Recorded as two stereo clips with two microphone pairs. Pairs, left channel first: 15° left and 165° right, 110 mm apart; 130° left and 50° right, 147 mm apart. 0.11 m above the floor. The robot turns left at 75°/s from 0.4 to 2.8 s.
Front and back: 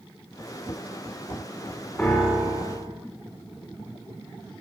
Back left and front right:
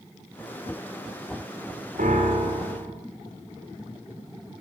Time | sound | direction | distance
2.0 | a piano | 60° right | 10 m